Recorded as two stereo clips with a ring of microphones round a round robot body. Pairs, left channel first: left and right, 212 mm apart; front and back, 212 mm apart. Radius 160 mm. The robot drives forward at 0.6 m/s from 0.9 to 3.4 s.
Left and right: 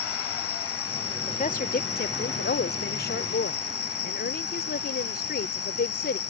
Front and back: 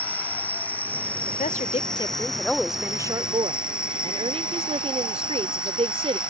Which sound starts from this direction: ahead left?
A woman speaking, at 1.3 s.